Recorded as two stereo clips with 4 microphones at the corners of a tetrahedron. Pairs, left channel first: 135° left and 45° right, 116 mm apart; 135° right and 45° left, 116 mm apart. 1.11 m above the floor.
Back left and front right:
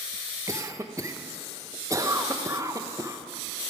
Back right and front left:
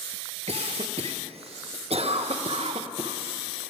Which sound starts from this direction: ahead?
A cough, at 0.5 s.